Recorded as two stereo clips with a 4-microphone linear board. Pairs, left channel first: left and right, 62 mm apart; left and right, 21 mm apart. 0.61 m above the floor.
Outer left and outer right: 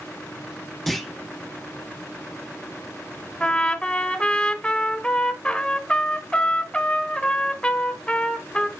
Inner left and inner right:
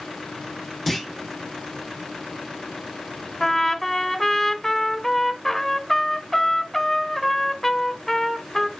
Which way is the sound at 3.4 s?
20° left (ahead or behind).